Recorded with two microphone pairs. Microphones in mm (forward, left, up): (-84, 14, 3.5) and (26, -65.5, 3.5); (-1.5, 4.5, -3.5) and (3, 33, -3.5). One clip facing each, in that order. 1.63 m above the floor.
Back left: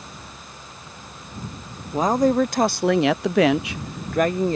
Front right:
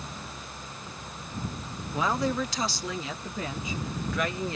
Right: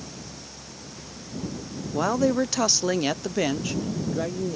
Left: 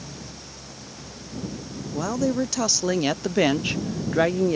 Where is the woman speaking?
165° right; by 4.6 s 95° left.